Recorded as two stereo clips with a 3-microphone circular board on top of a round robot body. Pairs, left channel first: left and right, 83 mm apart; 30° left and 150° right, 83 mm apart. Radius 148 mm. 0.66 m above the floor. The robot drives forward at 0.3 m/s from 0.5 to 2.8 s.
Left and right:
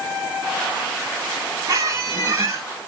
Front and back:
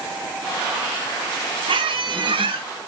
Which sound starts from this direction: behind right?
A squeak, at 1.7 s.